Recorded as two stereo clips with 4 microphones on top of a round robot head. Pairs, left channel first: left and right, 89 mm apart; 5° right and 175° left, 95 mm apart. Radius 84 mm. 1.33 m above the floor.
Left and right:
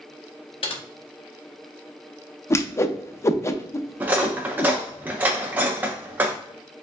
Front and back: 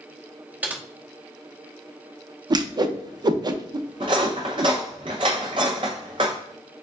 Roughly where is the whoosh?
Behind left.